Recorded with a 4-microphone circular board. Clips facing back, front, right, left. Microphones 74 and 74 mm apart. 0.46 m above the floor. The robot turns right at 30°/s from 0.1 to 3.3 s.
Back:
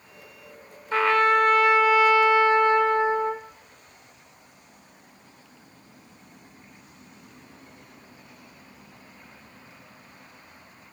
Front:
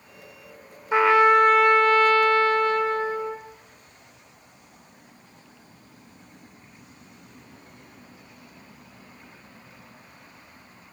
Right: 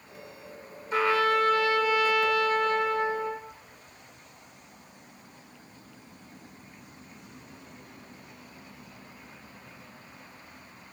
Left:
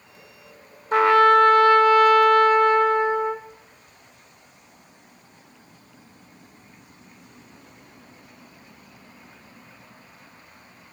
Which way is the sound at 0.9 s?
70° left.